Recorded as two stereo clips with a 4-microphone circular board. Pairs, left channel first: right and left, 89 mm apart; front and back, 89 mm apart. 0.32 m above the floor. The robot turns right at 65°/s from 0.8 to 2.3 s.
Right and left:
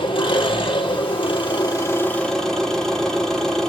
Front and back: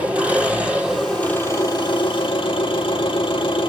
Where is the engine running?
105° right, 4.5 m; by 3.7 s 5° right, 4.5 m.